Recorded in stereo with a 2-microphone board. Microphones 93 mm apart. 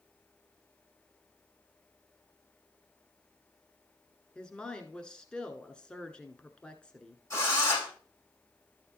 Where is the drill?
30° left (ahead or behind), 5 m.